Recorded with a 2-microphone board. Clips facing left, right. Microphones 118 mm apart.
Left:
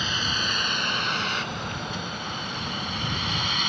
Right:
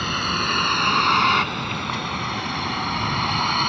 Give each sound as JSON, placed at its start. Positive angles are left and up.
{"t": 0.0, "sound": "a vehicle", "side_deg": -60}